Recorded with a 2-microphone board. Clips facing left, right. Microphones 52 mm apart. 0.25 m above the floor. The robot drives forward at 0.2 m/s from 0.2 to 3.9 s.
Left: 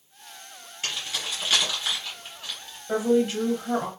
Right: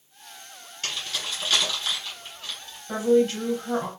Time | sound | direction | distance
0.8 | keys jangling | 15° left (ahead or behind) | 1.6 m
2.9 | a woman speaking | 10° left (ahead or behind) | 1.2 m